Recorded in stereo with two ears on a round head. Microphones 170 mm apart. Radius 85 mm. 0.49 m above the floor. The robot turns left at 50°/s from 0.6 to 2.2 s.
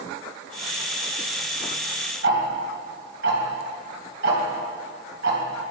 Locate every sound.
2.2 s ticking: 65° right (ahead or behind), 3 m